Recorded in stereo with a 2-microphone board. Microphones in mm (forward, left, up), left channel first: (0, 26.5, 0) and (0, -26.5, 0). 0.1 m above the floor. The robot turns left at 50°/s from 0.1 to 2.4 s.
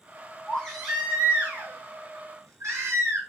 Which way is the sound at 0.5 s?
15° left.